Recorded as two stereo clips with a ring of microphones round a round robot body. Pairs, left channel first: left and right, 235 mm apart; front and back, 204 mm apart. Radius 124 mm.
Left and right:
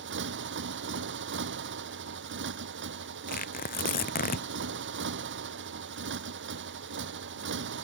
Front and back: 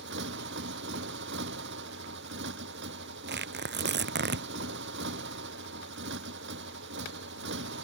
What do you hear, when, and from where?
0.0 s a motorcycle: 135° right
3.3 s tearing paper: 145° left